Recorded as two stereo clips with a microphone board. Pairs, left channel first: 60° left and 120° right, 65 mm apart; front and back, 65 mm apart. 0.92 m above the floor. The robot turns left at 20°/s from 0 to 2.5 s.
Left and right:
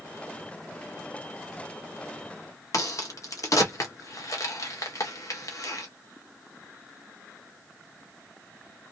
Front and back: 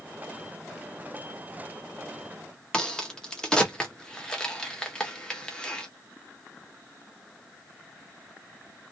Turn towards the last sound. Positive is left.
turn(degrees=75)